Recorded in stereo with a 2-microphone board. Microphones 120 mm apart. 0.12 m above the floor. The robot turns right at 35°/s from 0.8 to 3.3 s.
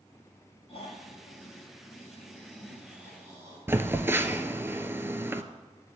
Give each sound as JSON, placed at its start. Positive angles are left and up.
{"t": 0.7, "sound": "snoring", "azimuth_deg": 115, "distance_m": 3.5}
{"t": 3.7, "sound": "a phone buzzing", "side_deg": -20, "distance_m": 0.5}